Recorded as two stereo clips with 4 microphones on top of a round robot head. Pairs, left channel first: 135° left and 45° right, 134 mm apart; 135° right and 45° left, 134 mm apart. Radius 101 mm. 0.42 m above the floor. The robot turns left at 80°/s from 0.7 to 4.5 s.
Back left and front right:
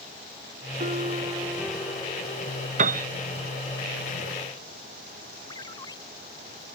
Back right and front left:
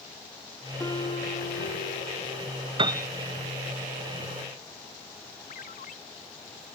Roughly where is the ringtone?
Behind.